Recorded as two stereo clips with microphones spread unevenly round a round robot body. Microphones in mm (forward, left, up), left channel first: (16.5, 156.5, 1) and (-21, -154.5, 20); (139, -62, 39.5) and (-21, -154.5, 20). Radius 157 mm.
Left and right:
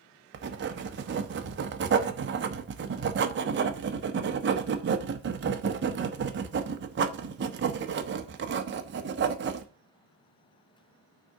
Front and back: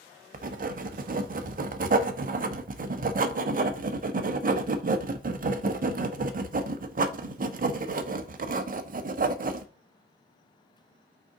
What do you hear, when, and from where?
0.3 s writing: 145° right, 1.0 m